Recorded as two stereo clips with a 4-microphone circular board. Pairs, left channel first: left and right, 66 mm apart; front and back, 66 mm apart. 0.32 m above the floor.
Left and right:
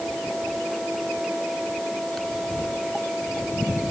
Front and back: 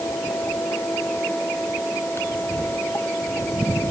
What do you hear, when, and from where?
Only background noise.